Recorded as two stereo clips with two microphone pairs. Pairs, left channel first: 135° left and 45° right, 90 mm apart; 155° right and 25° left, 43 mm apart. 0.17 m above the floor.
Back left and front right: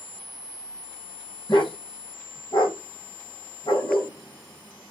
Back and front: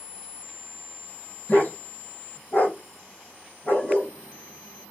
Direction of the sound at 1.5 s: 165° left.